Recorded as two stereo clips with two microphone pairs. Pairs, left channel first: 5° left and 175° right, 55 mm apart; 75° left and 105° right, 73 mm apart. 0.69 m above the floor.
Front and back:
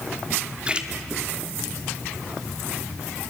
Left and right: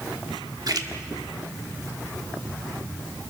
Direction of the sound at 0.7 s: 110° right.